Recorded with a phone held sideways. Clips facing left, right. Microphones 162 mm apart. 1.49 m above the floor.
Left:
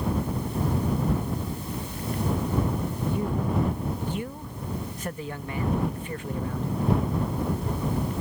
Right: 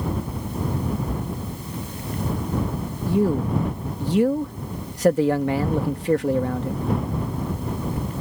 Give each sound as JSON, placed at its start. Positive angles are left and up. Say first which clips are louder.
{"t": 3.1, "sound": "a man speaking", "louder": "right 9 dB", "side_deg": -80}